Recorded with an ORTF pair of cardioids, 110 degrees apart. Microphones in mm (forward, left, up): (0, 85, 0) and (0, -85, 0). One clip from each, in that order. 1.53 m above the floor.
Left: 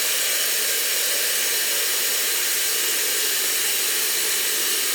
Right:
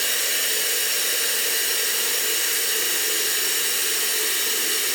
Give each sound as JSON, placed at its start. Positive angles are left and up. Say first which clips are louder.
{"t": 0.0, "sound": "running water", "louder": "even", "azimuth_deg": 10, "distance_m": 1.2}